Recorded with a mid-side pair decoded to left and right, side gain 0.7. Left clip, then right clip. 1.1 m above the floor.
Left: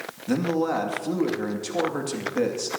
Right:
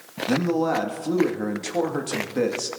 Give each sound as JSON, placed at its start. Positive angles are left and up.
{"t": 0.3, "sound": "a man speaking", "azimuth_deg": -10, "distance_m": 2.0}